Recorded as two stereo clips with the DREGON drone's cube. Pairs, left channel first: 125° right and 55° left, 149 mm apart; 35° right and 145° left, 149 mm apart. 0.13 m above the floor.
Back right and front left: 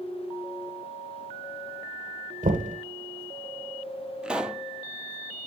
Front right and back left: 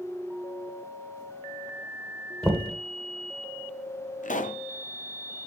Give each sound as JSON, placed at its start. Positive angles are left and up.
{"t": 2.4, "sound": "knocking", "azimuth_deg": 50, "distance_m": 1.9}
{"t": 4.2, "sound": "a pop", "azimuth_deg": -25, "distance_m": 0.7}